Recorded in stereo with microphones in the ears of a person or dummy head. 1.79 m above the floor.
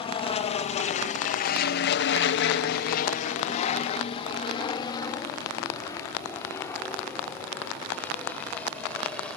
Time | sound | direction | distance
0.0 | an aircraft | 25° left (ahead or behind) | ?